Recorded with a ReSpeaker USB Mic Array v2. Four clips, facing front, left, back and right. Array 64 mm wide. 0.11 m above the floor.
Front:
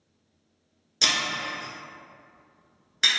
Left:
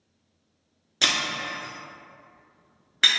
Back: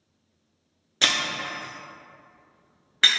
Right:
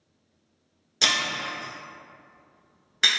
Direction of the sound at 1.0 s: 165° left.